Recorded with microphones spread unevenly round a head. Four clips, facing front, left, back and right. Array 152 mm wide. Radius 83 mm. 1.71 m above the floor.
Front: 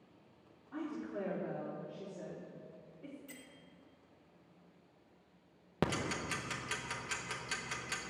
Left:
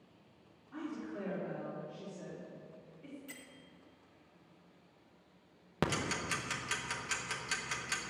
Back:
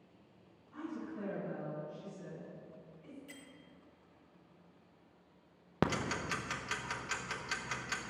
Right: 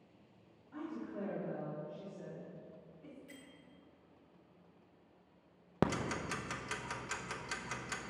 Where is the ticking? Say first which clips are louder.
Right 1 dB, back 2 dB; 160° right, 0.9 m.